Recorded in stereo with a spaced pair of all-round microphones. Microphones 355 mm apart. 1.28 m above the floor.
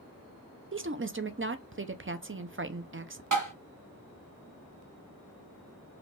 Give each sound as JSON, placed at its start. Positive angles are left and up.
{"t": 0.7, "sound": "a woman speaking", "side_deg": -35, "distance_m": 0.5}
{"t": 3.3, "sound": "tapping", "side_deg": -60, "distance_m": 2.5}